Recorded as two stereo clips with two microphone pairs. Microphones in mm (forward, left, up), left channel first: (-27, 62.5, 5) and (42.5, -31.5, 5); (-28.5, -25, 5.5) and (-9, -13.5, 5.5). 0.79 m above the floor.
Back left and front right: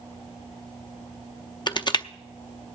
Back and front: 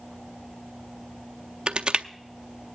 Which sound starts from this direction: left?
Crushing, at 1.7 s.